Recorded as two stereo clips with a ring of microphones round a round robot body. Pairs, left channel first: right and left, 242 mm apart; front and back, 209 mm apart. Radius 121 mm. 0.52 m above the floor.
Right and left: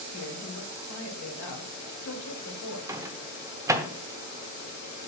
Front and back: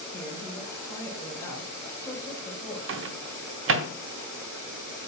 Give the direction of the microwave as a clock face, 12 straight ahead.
6 o'clock.